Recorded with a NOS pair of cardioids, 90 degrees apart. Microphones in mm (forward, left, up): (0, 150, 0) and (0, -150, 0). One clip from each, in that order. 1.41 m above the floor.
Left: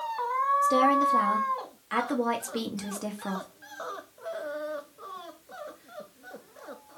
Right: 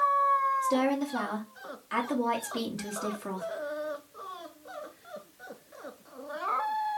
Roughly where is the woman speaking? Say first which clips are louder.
Left 6 dB; ahead.